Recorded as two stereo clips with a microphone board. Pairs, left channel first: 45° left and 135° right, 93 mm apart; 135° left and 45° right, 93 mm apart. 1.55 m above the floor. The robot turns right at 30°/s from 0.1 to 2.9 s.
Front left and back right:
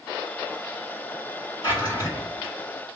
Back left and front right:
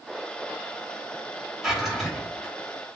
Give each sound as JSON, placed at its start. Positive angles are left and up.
{"t": 1.6, "sound": "a drawer", "azimuth_deg": 40, "distance_m": 1.5}